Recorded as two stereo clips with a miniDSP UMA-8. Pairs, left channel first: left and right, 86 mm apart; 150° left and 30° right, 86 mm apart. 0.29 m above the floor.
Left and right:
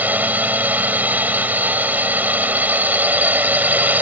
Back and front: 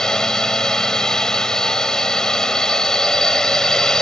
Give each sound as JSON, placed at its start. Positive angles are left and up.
{"t": 0.0, "sound": "a drone", "azimuth_deg": -135}